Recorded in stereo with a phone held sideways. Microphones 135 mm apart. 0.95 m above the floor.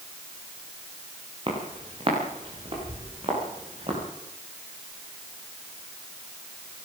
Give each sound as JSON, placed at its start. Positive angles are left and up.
{"t": 1.5, "sound": "footsteps", "side_deg": -40, "distance_m": 7.5}